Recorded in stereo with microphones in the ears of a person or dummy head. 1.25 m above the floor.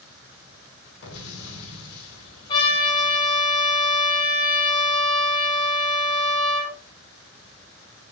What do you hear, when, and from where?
1.0 s an explosion: 80° left, 4 m
2.5 s a trumpet: 30° left (ahead or behind), 9 m